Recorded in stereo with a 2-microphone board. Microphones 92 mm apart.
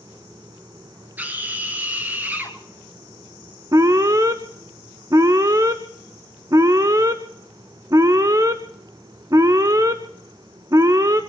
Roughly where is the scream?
Centre.